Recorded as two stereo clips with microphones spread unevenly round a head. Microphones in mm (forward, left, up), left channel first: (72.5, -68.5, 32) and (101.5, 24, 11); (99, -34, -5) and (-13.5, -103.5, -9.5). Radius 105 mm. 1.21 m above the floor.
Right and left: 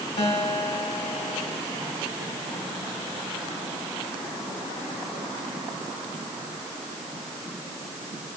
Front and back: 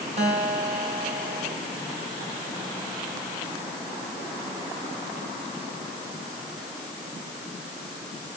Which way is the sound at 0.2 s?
115° right.